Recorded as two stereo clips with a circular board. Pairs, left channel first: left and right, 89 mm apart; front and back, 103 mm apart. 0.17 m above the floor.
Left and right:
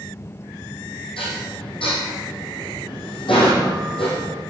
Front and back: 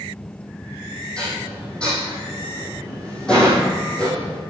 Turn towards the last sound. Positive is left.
turn(degrees=80)